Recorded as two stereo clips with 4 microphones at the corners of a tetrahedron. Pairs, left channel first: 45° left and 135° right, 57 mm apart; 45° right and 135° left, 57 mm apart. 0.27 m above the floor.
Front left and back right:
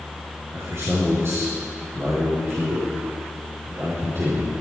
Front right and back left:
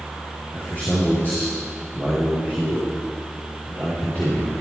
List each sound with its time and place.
0.5 s a man speaking: 100° right, 4 m